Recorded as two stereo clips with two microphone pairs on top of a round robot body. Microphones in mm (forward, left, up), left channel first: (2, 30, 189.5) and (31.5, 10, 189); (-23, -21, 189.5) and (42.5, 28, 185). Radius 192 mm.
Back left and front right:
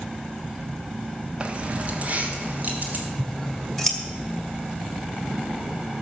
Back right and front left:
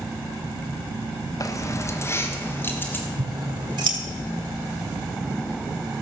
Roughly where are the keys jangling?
Right.